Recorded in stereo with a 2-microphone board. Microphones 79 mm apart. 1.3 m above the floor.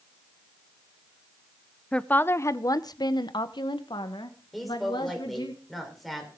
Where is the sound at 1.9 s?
10° left (ahead or behind), 0.6 m; by 5.5 s 85° left, 1.9 m.